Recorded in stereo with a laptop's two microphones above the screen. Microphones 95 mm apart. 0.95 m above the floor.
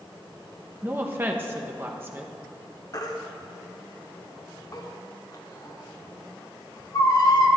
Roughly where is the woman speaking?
Right.